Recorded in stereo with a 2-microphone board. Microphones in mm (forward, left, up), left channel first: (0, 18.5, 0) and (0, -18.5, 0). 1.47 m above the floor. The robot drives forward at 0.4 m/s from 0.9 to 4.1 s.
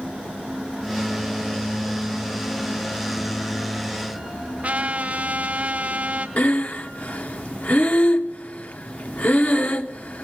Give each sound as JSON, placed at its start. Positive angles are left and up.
{"t": 4.6, "sound": "a trumpet", "side_deg": -40, "distance_m": 1.5}
{"t": 6.4, "sound": "breathing", "side_deg": 45, "distance_m": 1.0}